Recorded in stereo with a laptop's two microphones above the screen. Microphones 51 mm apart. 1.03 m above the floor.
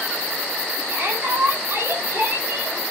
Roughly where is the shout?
Right.